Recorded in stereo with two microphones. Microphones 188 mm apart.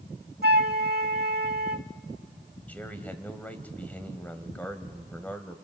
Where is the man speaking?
10° left (ahead or behind), 1.8 m.